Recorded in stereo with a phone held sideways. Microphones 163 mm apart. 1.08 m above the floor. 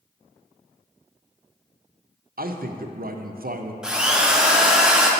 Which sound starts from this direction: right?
A man speaking, at 2.4 s.